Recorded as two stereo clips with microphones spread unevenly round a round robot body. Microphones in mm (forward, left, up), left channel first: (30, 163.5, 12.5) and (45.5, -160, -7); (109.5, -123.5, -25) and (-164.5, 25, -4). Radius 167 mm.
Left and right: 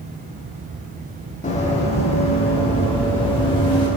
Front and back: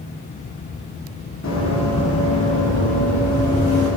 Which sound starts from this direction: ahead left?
Running footsteps, at 1.4 s.